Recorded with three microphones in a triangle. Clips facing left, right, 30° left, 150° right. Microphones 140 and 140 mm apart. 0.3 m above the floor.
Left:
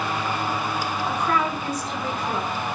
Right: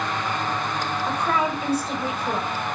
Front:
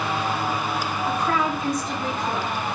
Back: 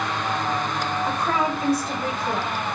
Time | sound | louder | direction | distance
1.1 | a woman speaking | even, front 2 dB | 120° right | 1.1 m